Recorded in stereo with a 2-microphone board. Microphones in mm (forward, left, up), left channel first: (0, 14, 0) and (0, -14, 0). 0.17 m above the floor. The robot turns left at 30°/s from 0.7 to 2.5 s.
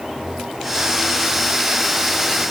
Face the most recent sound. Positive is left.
No sound to turn to.